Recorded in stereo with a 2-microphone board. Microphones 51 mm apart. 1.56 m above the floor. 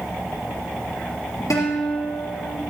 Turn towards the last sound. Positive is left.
turn(degrees=85)